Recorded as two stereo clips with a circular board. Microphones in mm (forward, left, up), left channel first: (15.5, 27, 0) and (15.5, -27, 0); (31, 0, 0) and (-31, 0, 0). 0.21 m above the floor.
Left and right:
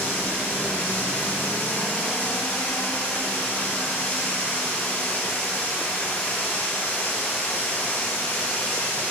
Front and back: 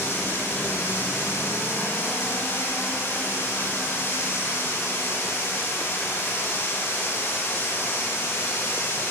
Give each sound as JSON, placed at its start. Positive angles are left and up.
{"t": 0.0, "sound": "running water", "azimuth_deg": 35, "distance_m": 2.5}